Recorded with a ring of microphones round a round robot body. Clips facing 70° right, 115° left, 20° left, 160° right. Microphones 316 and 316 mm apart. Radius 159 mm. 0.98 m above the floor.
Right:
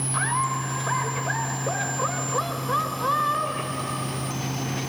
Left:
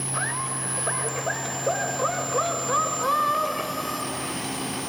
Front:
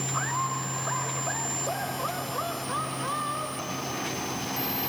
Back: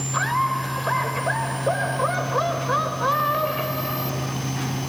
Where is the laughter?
135° right; by 4.3 s 160° right.